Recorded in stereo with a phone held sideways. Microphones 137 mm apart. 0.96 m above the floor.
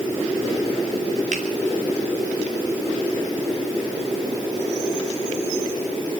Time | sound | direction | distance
1.3 | a finger snap | 70° right (ahead or behind) | 3.5 m